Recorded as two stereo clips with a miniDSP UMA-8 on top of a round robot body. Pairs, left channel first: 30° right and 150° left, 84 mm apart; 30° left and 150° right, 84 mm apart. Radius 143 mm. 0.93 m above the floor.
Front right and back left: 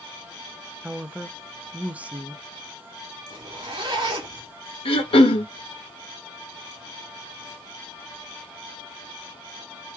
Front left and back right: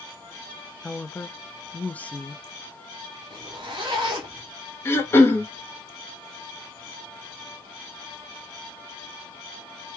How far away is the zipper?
About 0.5 m.